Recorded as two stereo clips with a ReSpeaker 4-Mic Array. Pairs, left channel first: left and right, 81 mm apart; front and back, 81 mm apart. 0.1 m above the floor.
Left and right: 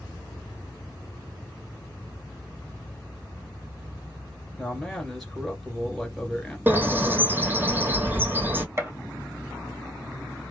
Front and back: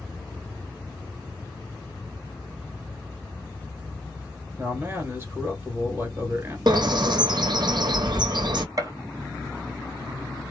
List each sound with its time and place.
4.6 s a man speaking: 175° left, 1.4 m
6.7 s a bird: 155° right, 0.8 m
8.8 s a gunshot: 145° right, 1.0 m